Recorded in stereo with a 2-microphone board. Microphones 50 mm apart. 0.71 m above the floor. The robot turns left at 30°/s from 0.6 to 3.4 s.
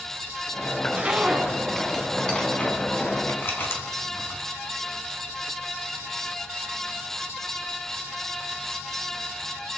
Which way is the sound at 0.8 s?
30° right (ahead or behind).